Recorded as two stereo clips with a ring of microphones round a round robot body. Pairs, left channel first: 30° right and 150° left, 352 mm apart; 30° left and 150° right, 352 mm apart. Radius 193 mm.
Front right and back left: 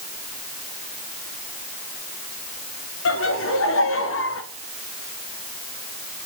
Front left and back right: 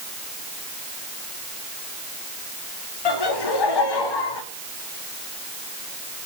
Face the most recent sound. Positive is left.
turn(degrees=25)